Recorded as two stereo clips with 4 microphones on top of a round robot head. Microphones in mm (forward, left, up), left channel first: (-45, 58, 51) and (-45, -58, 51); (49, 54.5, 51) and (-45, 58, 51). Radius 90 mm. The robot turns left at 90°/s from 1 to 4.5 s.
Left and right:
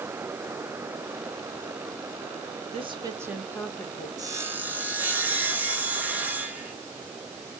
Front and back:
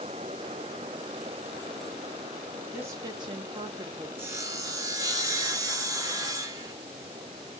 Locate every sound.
2.7 s a woman speaking: 115° right, 0.8 m; by 4.1 s 125° left, 0.8 m
4.2 s sawing: 130° right, 0.8 m; by 6.7 s 160° right, 0.8 m